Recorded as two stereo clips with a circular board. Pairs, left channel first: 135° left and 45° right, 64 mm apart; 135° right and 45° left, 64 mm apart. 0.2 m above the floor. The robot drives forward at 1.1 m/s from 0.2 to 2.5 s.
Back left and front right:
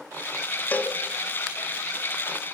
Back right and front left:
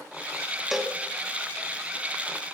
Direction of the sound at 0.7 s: 130° left.